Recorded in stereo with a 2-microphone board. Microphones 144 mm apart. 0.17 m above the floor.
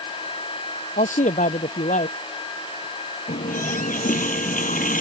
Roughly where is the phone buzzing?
I don't hear a phone buzzing.